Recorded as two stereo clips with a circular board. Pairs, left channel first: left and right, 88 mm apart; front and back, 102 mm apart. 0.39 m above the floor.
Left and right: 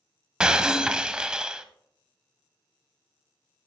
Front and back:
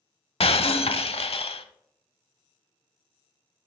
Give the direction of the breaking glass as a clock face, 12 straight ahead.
12 o'clock.